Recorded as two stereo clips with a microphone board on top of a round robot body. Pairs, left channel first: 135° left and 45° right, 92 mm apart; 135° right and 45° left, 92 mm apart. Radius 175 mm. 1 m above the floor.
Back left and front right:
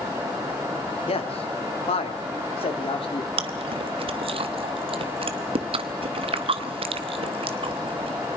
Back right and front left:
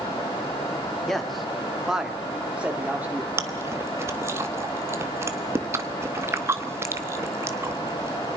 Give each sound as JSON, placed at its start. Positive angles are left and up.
{"t": 1.1, "sound": "a man speaking", "azimuth_deg": 140, "distance_m": 2.5}
{"t": 3.4, "sound": "chewing", "azimuth_deg": -20, "distance_m": 0.9}